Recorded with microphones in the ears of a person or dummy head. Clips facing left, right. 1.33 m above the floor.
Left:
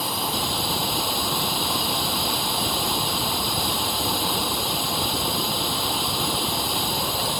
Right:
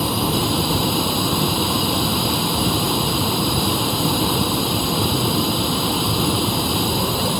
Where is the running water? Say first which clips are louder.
Right 8 dB; 55° right (ahead or behind).